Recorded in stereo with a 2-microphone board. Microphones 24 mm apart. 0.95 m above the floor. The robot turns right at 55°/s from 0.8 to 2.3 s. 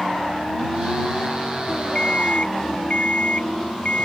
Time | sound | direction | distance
1.9 | an alarm clock | 30° left (ahead or behind) | ?